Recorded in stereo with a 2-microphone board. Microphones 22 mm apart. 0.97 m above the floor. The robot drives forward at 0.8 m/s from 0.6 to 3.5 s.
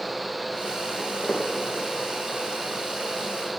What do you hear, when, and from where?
1.0 s footsteps: 60° left (ahead or behind), 3 m; by 1.5 s 65° left (ahead or behind), 3 m